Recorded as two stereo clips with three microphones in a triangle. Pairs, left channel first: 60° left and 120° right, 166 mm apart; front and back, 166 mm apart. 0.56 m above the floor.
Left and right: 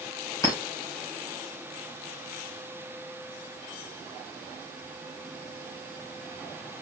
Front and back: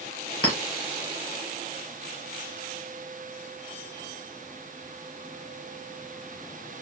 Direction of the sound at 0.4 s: 130° left.